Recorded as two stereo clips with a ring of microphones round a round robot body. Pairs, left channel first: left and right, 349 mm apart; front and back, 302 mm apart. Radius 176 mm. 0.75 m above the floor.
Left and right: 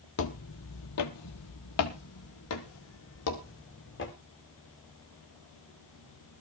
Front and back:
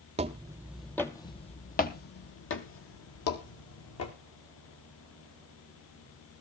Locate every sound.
0.2 s footsteps: 120° left, 0.9 m; by 4.1 s 35° left, 2 m